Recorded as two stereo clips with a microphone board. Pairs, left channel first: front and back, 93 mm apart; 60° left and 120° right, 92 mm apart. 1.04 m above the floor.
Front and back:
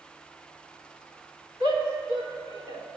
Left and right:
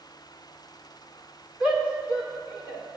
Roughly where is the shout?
Behind.